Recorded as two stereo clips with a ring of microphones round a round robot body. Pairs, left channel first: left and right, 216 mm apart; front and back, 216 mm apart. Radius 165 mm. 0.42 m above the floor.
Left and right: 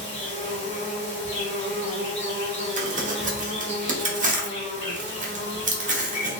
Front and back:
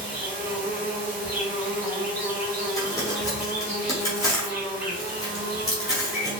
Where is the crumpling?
65° right, 1.0 m.